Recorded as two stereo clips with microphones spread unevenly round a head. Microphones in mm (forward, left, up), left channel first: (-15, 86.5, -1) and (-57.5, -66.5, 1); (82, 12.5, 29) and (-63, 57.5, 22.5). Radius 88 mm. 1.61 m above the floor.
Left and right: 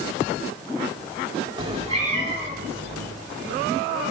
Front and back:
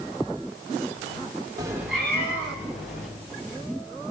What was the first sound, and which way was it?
A cat meowing, 140° right.